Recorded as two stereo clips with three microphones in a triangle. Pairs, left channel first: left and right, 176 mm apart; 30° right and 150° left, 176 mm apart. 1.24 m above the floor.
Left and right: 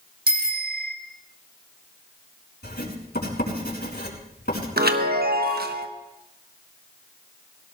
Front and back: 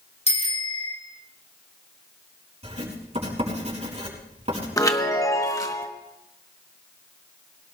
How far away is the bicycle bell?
About 3.5 m.